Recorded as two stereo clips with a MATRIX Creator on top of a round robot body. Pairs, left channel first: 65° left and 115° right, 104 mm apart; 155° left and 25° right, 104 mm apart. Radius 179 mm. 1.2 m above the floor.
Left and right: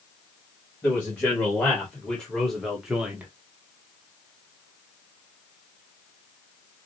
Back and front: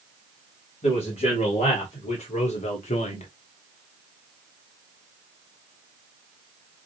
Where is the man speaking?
140° left, 1.9 m; by 3.3 s 175° left, 0.7 m.